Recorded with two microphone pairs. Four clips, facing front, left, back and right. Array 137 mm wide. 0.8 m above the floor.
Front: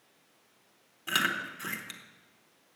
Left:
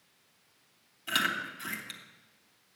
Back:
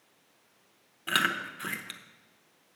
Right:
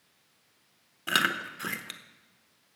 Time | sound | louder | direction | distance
1.1 | chewing | right 3 dB, back 2 dB | 105° right | 0.9 m